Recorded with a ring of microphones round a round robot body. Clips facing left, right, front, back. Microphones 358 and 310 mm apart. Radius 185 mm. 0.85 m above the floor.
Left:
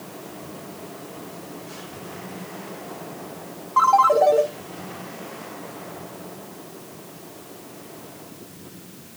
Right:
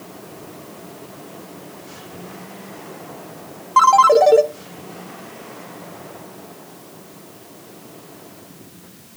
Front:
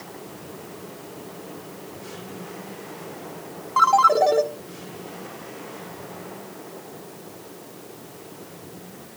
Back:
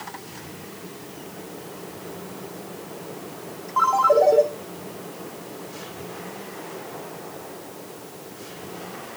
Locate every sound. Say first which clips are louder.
3.8 s a ringtone: right 5 dB, back 2 dB; 60° right, 1.0 m